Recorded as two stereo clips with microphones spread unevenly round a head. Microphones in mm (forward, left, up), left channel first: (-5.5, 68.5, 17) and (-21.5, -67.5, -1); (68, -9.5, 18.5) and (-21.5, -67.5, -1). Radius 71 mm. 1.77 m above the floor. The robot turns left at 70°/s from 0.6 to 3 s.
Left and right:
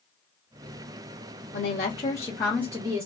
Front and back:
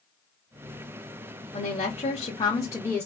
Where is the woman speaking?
60° left, 1.1 m; by 3.1 s 40° right, 1.1 m.